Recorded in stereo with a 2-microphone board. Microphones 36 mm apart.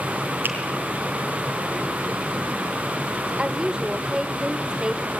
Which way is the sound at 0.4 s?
70° right (ahead or behind).